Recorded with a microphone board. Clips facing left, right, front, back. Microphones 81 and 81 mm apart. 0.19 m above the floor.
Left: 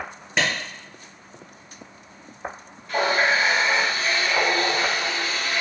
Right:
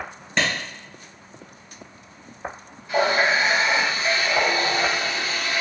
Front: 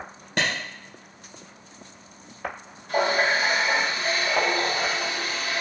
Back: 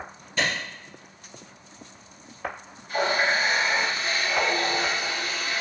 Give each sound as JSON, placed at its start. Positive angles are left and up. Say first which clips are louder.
{"t": 0.4, "sound": "a clap", "louder": "even, front 1 dB", "azimuth_deg": 5, "distance_m": 2.0}
{"t": 2.9, "sound": "a running tap", "louder": "right 1 dB, front 2 dB", "azimuth_deg": -10, "distance_m": 2.5}